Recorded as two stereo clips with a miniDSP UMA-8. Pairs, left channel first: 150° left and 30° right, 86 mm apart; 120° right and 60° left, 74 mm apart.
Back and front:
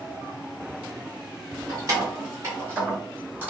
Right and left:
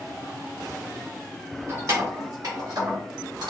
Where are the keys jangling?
15° left, 2 m; by 3.5 s 40° left, 2 m.